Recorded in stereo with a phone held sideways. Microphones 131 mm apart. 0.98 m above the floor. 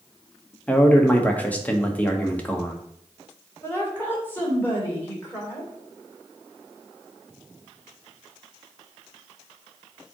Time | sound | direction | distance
0.7 | a man speaking | 10° left (ahead or behind) | 1.1 m
3.6 | a woman speaking | 15° left (ahead or behind) | 3 m